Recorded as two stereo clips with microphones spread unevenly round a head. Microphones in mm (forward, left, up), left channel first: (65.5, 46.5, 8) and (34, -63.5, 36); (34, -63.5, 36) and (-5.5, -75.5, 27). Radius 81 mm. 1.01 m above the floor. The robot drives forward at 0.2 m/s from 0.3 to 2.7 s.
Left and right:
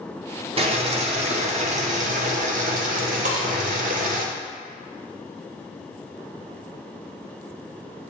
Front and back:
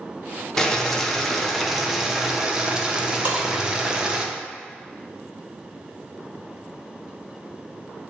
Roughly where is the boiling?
Ahead right.